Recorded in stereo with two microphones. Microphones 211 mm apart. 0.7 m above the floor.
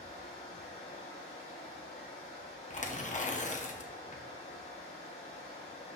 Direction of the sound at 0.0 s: 85° left.